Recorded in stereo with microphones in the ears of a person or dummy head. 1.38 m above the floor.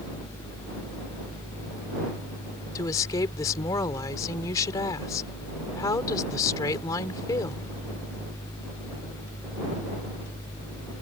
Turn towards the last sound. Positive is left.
turn(degrees=20)  # may be behind; listen again after turning